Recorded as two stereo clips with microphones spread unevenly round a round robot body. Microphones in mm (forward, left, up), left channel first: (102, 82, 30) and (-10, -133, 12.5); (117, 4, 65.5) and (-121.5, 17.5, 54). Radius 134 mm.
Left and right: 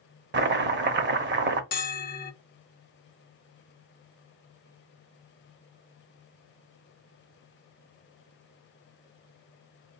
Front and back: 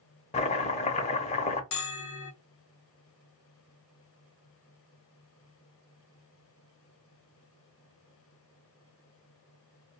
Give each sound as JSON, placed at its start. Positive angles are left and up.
{"t": 0.3, "sound": "chopping", "azimuth_deg": -70, "distance_m": 0.7}
{"t": 1.7, "sound": "a bell", "azimuth_deg": 5, "distance_m": 0.8}